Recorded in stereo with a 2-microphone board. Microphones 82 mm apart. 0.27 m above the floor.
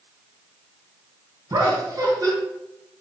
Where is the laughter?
50° right (ahead or behind), 2.5 m.